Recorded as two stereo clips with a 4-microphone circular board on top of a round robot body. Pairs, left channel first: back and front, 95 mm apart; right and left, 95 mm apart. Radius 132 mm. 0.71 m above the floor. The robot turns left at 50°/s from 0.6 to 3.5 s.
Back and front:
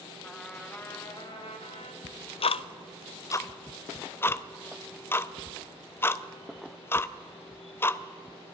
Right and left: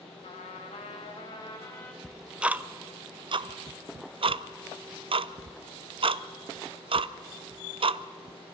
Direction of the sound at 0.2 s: 100° right.